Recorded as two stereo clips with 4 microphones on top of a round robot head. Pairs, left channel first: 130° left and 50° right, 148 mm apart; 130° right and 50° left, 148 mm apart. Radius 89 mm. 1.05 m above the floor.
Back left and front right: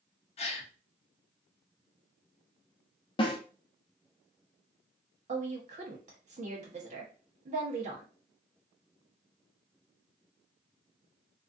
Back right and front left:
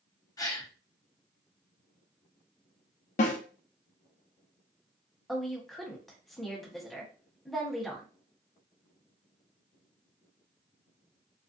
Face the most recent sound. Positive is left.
turn(degrees=-40)